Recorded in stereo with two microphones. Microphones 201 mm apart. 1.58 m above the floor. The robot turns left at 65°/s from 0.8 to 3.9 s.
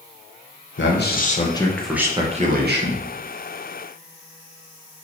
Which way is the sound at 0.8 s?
70° left.